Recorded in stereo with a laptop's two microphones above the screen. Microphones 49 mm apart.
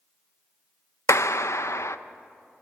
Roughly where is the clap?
Left.